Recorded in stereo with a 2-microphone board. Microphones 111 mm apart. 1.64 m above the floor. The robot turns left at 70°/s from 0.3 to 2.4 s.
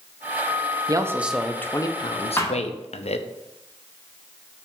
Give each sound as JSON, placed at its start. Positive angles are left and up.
{"t": 0.9, "sound": "a man speaking", "azimuth_deg": -145, "distance_m": 0.6}
{"t": 2.4, "sound": "a thud", "side_deg": 25, "distance_m": 1.2}